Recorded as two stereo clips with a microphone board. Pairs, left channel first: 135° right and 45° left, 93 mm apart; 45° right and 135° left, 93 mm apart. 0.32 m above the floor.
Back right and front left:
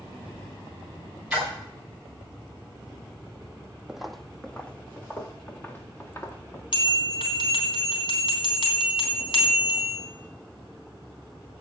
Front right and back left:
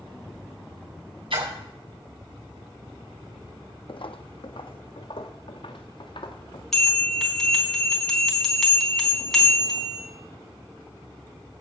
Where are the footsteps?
40° right, 0.7 m; by 6.6 s 70° right, 2.5 m.